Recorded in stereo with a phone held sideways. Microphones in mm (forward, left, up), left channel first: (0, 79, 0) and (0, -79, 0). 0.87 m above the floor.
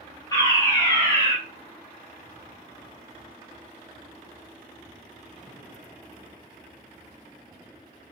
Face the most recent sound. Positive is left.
turn(degrees=25)  # may be behind; listen again after turning